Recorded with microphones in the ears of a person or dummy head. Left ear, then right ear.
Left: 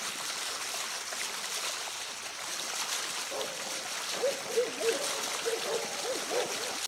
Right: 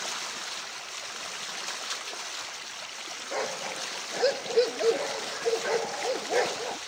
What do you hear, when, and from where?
3.3 s a dog barking: 65° right (ahead or behind)